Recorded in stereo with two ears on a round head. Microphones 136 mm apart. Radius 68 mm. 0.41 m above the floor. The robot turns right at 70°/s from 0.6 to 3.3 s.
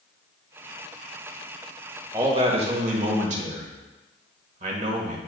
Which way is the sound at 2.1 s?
155° right.